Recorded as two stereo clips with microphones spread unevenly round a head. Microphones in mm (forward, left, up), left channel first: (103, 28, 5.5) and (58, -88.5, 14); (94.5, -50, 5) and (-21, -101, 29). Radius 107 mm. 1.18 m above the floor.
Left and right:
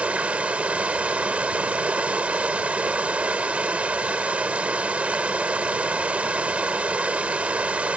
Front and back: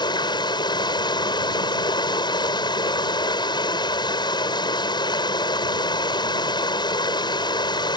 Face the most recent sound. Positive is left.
turn(degrees=-35)